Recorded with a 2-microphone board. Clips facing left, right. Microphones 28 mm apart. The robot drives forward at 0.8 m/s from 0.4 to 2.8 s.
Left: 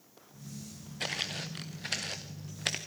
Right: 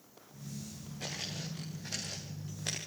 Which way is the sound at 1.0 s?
65° left (ahead or behind).